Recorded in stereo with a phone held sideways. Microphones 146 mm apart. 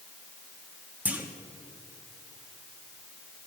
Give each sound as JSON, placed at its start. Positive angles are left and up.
{"t": 1.1, "sound": "a clunk", "side_deg": -10, "distance_m": 1.1}